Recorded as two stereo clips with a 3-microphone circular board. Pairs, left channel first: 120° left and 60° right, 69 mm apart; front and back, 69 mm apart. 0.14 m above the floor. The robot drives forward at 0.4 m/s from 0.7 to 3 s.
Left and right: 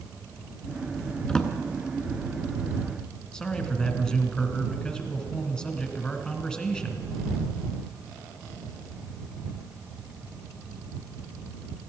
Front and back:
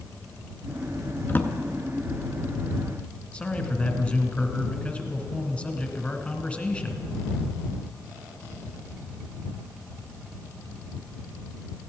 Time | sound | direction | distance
1.3 | a drawer | 45° left | 0.8 m
3.3 | a man speaking | 55° left | 1.1 m